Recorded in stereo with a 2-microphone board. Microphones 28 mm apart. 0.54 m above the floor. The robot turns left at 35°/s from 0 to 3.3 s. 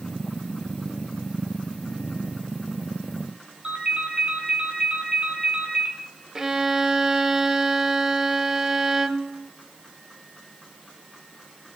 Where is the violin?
20° right (ahead or behind), 0.7 m.